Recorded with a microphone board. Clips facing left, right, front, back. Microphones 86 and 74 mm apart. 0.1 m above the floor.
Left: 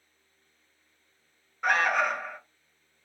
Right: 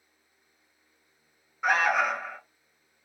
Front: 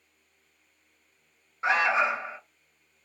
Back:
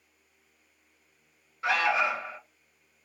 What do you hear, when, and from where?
1.6 s an alarm: 10° right, 0.9 m